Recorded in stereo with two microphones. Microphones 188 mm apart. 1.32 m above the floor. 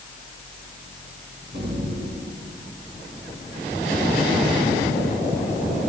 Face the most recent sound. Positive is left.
turn(degrees=-55)  # may be behind; listen again after turning